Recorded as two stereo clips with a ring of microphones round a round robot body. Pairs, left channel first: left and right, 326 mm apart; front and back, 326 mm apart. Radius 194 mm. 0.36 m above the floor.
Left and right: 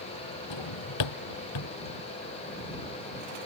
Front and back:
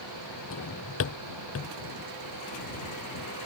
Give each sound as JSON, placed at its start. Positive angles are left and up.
{"t": 0.5, "sound": "a drawer", "azimuth_deg": 55}